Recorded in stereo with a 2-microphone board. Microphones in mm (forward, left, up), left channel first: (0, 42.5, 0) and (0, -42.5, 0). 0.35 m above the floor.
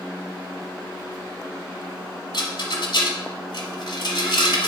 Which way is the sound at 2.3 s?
65° left (ahead or behind).